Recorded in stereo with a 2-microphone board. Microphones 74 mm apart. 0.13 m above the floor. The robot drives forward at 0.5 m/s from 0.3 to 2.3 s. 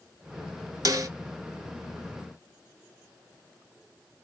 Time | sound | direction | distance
0.8 | a snare drum | 55° right (ahead or behind) | 0.5 m